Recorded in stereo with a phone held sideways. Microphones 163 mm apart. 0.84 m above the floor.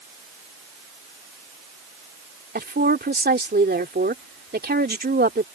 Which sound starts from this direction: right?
A woman speaking, at 2.5 s.